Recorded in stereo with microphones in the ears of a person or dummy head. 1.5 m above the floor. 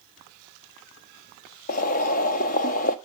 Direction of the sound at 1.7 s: 45° left (ahead or behind).